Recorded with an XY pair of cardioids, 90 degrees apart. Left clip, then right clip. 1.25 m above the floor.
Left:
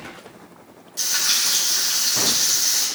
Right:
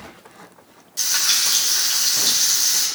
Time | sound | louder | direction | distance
1.0 | frying | right 1 dB | 20° right | 3.5 m